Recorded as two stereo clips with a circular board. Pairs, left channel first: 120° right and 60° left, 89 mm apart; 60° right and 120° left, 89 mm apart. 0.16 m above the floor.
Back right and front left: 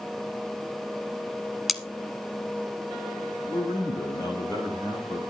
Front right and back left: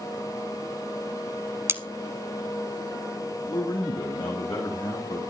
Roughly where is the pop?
I don't hear a pop.